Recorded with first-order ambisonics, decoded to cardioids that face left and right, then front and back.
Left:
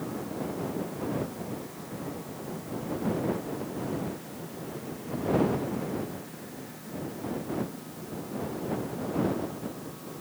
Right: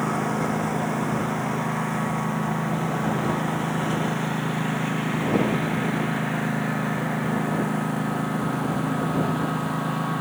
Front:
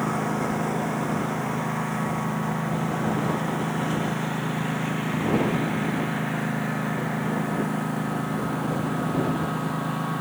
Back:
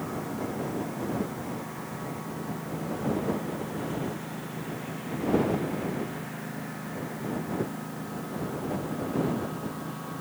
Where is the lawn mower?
55° right; by 10.2 s 60° right.